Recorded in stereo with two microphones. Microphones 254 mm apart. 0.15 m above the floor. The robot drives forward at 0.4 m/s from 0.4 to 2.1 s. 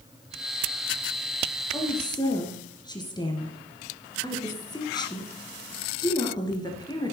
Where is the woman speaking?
15° left (ahead or behind), 2.5 m.